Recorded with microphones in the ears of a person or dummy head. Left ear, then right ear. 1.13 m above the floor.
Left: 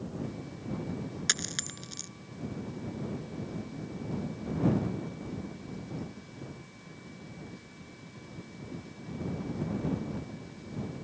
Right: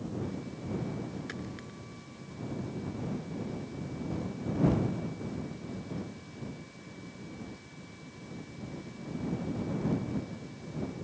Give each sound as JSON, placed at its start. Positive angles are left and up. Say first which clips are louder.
{"t": 1.3, "sound": "a dropped coin", "louder": "left 10 dB", "side_deg": 75}